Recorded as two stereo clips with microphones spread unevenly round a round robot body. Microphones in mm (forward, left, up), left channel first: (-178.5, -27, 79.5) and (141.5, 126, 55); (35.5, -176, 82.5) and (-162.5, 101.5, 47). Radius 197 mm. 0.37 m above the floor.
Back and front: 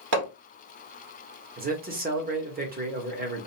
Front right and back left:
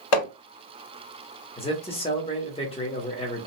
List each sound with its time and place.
0.1 s hammering: 35° right, 1.4 m
1.6 s a man speaking: 15° left, 0.8 m